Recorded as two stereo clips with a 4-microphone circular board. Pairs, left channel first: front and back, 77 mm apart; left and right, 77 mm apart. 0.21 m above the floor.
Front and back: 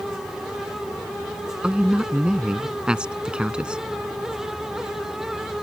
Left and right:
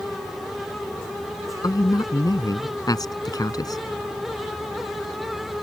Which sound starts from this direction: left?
A man speaking, at 1.6 s.